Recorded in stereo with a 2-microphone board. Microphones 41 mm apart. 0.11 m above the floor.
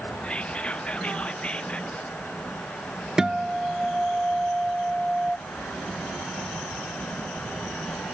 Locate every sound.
0.2 s whispering: 30° left (ahead or behind)
3.2 s a guitar: 15° right (ahead or behind)